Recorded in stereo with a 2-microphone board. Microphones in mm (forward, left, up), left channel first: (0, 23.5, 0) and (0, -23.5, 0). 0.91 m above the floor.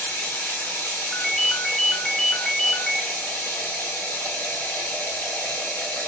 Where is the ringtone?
20° left (ahead or behind), 0.5 m.